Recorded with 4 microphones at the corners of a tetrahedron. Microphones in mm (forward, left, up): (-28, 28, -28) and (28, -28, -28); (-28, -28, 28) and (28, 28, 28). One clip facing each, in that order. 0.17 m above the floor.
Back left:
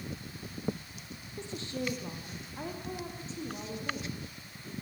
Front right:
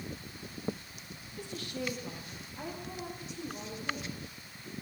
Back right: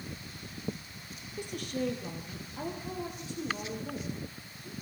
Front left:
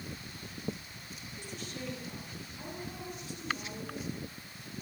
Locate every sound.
1.4 s a woman speaking: 160° right, 4.5 m; by 4.7 s 165° right, 9 m